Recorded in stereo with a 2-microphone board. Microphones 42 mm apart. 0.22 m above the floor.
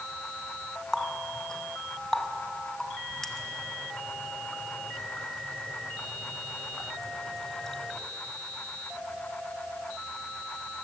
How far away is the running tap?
About 1.2 m.